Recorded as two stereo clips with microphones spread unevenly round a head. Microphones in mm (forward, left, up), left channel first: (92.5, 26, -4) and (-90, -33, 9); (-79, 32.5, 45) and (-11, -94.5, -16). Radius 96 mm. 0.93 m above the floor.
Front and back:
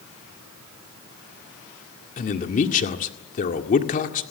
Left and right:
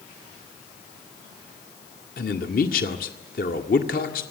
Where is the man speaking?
70° left, 1.9 m.